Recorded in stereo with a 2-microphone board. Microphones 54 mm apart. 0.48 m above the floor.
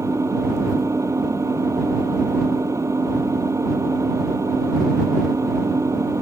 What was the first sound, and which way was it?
An engine running, 65° right (ahead or behind).